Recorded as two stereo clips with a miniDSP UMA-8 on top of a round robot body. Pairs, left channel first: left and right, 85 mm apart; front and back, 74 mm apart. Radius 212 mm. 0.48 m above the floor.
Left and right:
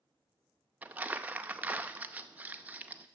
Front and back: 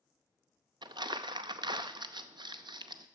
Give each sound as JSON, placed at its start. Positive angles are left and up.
{"t": 0.8, "sound": "crumpling", "azimuth_deg": -165, "distance_m": 0.6}